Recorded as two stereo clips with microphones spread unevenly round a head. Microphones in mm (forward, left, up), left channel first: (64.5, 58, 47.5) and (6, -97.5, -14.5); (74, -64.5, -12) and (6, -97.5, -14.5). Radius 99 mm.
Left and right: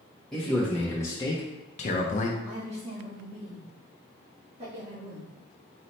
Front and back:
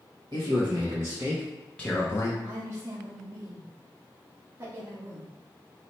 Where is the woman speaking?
115° right, 1.3 m.